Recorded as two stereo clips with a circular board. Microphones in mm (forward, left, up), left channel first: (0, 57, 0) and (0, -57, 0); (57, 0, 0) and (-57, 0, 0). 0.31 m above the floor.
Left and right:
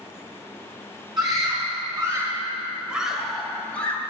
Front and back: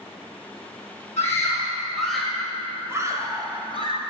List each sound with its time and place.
1.2 s a scream: 55° right, 2.5 m; by 4.0 s 160° left, 2.5 m